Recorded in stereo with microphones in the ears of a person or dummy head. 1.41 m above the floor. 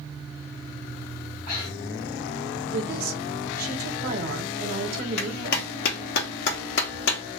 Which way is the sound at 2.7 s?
50° right (ahead or behind).